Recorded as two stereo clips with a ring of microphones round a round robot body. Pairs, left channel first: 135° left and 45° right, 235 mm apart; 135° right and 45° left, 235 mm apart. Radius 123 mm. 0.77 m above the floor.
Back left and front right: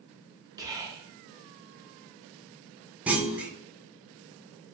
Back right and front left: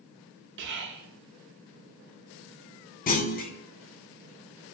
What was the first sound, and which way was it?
Whispering, 25° left.